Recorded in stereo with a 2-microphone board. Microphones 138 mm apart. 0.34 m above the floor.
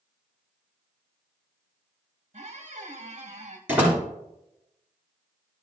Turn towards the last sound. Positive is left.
turn(degrees=-10)  # may be behind; listen again after turning